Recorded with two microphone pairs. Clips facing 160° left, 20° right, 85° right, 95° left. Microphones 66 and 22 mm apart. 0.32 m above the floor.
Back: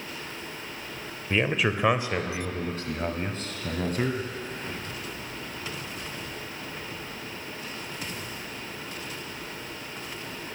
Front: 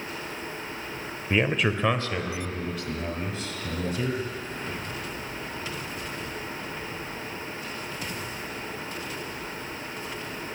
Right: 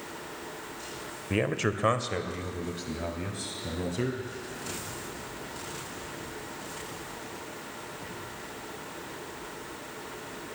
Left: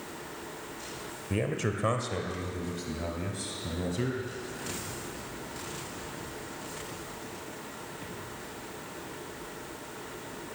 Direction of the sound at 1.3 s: 95° right.